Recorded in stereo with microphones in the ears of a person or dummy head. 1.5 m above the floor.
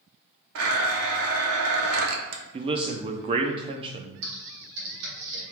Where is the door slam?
No door slam in this recording.